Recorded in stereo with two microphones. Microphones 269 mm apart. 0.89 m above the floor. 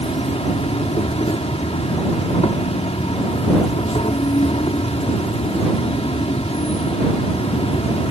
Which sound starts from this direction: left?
An insect, at 0.0 s.